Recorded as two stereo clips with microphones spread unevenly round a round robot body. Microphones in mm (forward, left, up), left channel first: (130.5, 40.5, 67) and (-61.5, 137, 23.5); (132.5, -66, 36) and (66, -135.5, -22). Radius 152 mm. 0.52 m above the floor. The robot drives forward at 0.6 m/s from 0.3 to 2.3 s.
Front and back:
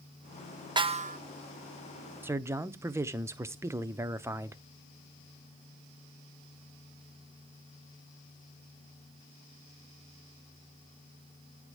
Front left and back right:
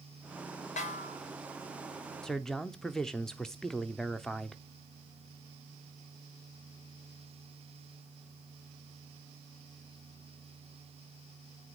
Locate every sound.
0.8 s a snare drum: 85° left, 0.7 m; by 1.2 s 105° left, 0.7 m
2.2 s a man speaking: 160° right, 0.7 m; by 4.6 s 165° right, 0.7 m